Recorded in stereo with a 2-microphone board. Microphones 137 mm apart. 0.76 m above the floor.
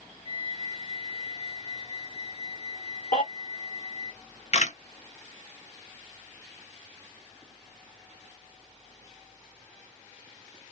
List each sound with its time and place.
0.2 s a flute: 40° left (ahead or behind), 1.2 m
3.1 s a baby crying: 70° left (ahead or behind), 1.5 m
4.5 s a camera shutter: 55° left (ahead or behind), 0.6 m